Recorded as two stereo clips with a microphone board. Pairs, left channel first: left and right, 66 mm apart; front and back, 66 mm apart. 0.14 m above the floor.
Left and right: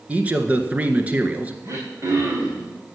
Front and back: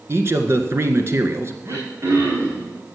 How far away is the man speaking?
About 1.6 m.